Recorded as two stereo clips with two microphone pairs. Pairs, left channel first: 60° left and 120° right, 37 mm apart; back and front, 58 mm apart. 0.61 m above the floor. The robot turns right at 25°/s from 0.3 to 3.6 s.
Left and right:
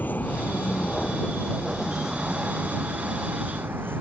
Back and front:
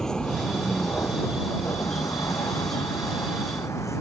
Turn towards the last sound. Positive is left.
turn(degrees=-145)